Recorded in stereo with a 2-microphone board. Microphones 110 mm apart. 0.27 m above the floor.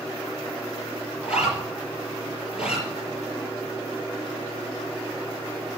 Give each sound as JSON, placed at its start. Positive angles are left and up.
{"t": 1.2, "sound": "a zipper", "side_deg": -5, "distance_m": 4.5}